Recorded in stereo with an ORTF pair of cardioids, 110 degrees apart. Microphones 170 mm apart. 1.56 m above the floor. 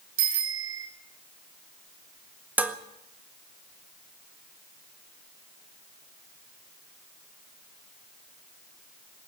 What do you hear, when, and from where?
0.2 s a bicycle bell: 65° right, 4.5 m
2.6 s dishes clattering: 10° right, 1.7 m